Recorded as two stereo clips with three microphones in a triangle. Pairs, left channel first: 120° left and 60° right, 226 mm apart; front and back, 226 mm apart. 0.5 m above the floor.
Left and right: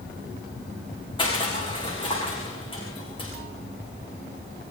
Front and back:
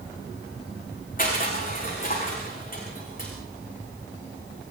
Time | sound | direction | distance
1.2 | crushing | 50° left | 8.5 m